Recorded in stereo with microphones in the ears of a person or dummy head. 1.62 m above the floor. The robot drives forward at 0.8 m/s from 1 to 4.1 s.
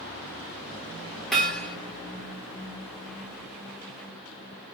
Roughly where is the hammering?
Centre.